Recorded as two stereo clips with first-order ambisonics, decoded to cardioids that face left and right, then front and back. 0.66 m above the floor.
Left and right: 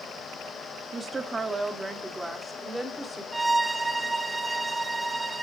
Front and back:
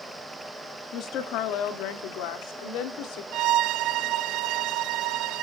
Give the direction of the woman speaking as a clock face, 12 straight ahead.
1 o'clock.